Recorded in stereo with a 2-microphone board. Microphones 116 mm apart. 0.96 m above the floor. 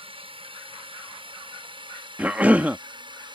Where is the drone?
50° right (ahead or behind); by 3.4 s 40° right (ahead or behind).